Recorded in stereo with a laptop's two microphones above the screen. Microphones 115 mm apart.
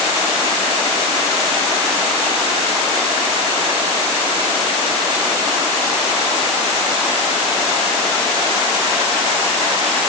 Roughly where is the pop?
I don't hear a pop.